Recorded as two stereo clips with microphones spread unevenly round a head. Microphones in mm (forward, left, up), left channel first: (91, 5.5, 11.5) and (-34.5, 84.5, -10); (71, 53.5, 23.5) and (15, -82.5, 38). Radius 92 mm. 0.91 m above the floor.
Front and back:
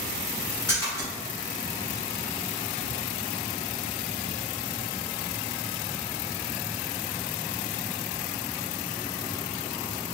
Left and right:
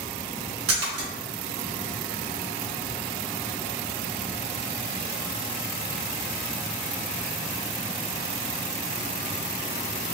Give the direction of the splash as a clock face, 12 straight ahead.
4 o'clock.